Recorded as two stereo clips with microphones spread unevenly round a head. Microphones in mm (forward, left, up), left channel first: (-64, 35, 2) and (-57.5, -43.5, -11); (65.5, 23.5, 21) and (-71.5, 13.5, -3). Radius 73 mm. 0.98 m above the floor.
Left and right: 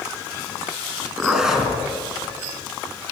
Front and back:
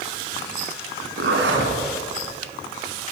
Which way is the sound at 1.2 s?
170° right.